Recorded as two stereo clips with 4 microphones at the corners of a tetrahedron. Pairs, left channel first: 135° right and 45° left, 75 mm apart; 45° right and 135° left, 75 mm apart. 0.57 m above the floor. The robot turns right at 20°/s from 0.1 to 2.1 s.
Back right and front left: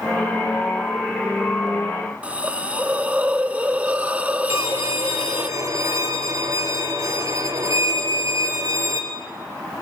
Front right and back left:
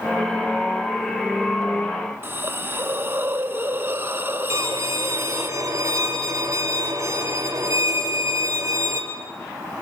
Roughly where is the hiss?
Left.